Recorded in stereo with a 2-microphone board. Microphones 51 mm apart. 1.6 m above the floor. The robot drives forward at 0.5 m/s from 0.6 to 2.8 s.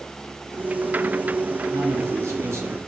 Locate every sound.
1.7 s a man speaking: 70° right (ahead or behind), 4 m; by 2.8 s 65° right (ahead or behind), 4 m